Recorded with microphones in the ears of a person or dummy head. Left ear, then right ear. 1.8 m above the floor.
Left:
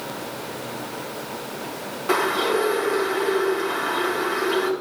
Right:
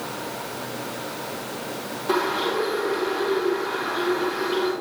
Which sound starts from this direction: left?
A bird, at 2.1 s.